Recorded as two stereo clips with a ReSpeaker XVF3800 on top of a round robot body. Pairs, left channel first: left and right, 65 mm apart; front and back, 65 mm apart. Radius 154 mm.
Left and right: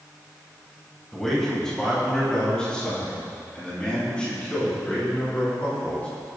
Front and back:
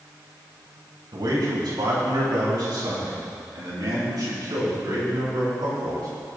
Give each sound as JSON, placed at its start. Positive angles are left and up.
{"t": 1.1, "sound": "a man speaking", "azimuth_deg": 175, "distance_m": 4.5}